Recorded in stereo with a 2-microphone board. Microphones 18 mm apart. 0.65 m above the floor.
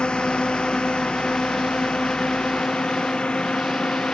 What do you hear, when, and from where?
0.0 s a drone: 55° left (ahead or behind); by 4.2 s 65° left (ahead or behind)